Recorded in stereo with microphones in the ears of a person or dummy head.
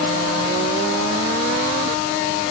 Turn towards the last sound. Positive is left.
No sound to turn to.